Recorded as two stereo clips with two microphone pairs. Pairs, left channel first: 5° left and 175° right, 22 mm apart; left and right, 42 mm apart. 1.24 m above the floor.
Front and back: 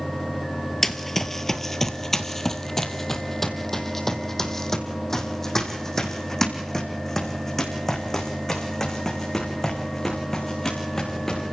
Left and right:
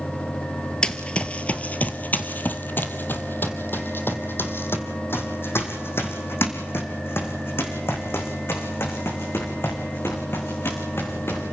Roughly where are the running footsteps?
Ahead left.